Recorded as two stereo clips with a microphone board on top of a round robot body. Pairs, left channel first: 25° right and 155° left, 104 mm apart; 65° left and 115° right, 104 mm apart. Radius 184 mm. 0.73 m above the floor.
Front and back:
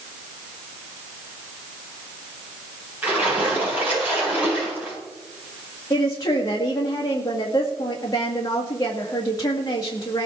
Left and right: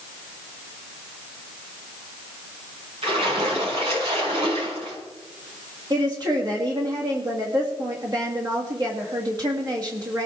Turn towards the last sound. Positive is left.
turn(degrees=-70)